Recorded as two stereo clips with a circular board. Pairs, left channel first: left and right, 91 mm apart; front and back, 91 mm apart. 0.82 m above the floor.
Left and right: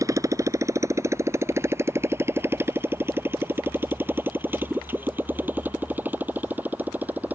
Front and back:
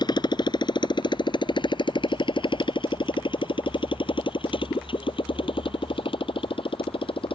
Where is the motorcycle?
35° right; by 7.4 s 15° right.